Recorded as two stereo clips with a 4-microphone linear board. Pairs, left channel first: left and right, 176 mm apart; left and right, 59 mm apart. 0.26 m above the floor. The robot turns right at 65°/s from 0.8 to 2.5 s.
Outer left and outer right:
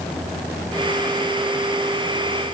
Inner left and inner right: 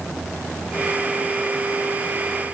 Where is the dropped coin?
I don't hear a dropped coin.